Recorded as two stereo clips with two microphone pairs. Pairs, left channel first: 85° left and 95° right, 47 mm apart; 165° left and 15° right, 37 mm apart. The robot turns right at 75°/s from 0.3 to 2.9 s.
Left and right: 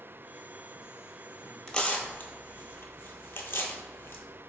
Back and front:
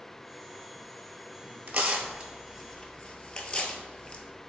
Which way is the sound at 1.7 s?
15° left.